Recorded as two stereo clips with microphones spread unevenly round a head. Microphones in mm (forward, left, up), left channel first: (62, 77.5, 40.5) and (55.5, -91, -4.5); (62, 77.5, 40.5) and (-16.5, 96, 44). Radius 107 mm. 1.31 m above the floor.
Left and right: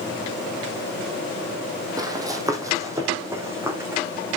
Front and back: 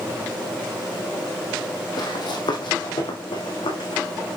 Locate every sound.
2.0 s running footsteps: 15° right, 1.9 m; by 4.0 s 10° right, 3.5 m